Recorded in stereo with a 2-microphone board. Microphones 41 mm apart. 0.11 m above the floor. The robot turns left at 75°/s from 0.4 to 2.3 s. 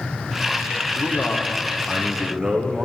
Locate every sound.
1.0 s a man speaking: 95° left, 3.5 m; by 2.9 s 5° right, 3.5 m